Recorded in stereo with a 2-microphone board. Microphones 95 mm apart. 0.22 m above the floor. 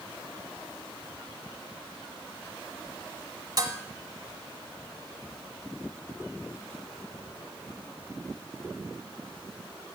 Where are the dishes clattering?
40° right (ahead or behind), 0.9 m.